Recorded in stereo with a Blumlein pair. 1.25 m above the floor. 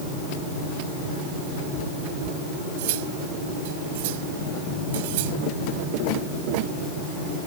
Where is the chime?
No chime in this recording.